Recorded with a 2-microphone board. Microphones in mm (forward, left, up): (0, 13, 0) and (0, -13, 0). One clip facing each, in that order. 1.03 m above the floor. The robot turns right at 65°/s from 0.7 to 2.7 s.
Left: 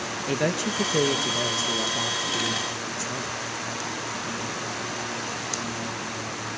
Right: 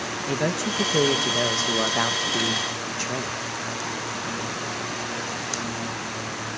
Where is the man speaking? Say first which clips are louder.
Even; 170° left, 1.1 m; by 3.4 s 60° right, 1.1 m.